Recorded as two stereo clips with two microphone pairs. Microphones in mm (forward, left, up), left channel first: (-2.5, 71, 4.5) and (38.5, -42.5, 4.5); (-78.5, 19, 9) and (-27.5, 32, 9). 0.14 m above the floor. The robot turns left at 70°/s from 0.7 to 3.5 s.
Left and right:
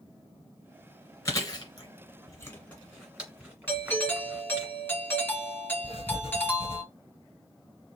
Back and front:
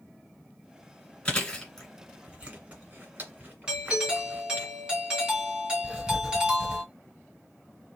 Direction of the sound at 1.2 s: 145° left.